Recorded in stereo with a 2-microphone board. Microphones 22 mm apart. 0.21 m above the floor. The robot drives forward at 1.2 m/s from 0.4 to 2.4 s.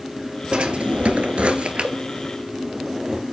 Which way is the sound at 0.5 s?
50° right (ahead or behind).